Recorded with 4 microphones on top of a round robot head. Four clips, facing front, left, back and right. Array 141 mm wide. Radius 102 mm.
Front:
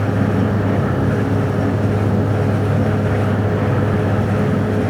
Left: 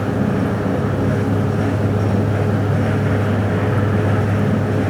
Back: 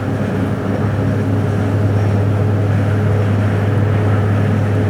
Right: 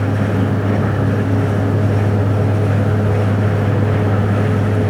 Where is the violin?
No violin in this recording.